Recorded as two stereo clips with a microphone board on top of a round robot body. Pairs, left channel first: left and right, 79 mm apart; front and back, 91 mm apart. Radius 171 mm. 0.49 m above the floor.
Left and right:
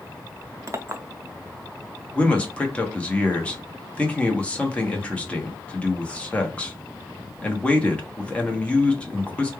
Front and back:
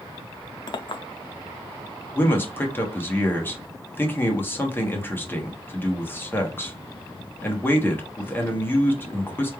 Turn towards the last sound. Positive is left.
turn(degrees=35)